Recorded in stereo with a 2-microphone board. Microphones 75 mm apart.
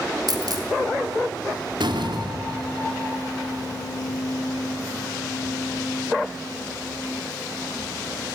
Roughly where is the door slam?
Right.